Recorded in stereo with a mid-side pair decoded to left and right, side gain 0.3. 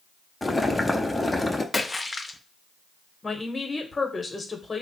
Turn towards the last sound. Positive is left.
turn(degrees=40)